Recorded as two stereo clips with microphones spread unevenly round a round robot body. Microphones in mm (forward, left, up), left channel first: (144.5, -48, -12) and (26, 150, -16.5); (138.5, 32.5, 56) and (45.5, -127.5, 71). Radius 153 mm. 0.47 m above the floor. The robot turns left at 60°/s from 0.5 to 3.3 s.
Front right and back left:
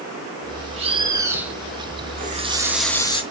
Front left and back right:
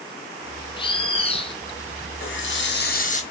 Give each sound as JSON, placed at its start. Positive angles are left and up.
{"t": 0.8, "sound": "a bird", "azimuth_deg": 85, "distance_m": 1.5}
{"t": 2.2, "sound": "a running tap", "azimuth_deg": 70, "distance_m": 2.5}